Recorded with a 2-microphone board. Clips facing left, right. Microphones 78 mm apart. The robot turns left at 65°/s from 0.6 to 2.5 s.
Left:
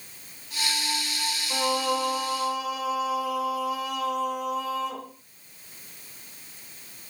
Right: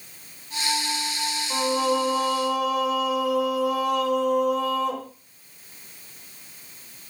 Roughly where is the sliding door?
No sliding door in this recording.